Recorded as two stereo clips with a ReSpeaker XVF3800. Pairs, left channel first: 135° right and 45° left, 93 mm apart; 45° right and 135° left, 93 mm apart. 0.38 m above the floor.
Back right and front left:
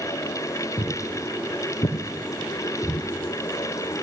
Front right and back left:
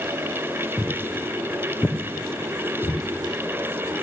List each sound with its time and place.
0.8 s footsteps: 155° right, 1.8 m; by 3.0 s 90° right, 2.5 m